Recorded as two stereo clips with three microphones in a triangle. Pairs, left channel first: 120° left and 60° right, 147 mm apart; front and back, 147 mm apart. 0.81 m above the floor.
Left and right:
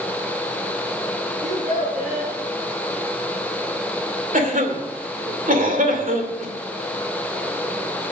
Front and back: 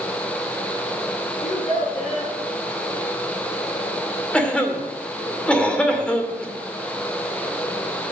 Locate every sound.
1.4 s a child speaking: 35° right, 6 m
4.3 s a cough: 80° right, 2.5 m